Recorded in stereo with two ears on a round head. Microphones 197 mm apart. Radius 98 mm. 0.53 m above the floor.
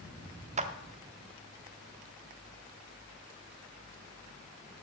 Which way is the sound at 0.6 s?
30° right (ahead or behind).